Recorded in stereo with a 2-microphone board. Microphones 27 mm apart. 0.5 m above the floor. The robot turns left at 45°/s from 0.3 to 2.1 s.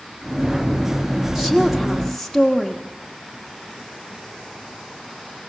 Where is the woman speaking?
10° right (ahead or behind), 1.3 m; by 2.8 s centre (ahead or behind), 1.3 m.